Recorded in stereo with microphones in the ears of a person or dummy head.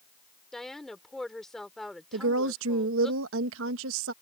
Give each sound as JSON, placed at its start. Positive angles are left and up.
{"t": 0.5, "sound": "a woman speaking", "side_deg": 0}
{"t": 2.1, "sound": "a woman speaking", "side_deg": -85}